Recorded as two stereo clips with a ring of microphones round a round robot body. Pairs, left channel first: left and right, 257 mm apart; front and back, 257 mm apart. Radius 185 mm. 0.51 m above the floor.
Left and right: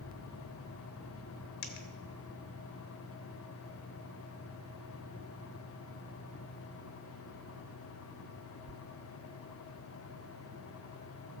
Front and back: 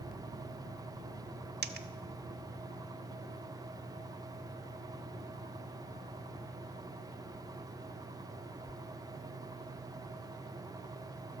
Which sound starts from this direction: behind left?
A dropped coin, at 1.6 s.